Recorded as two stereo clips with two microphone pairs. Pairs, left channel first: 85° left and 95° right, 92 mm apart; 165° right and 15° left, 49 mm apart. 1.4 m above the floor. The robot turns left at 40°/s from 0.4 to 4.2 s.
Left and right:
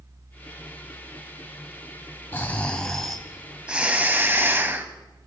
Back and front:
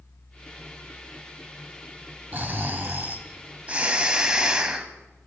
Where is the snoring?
25° left, 1.5 m; by 4.9 s 50° right, 1.5 m.